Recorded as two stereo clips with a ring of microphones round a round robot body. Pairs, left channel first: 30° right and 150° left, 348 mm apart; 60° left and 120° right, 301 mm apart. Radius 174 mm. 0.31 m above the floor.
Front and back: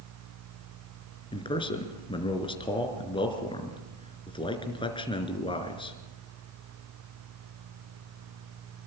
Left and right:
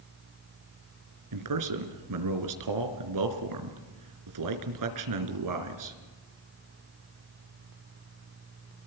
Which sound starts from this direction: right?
A man speaking, at 1.3 s.